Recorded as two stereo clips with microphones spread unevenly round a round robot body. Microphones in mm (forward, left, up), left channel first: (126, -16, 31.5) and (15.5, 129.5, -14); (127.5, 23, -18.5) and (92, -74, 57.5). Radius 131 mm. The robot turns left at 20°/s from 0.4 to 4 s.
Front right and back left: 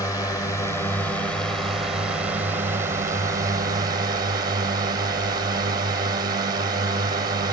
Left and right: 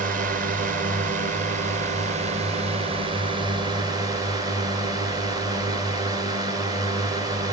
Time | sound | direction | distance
0.0 | a drone | 135° right | ?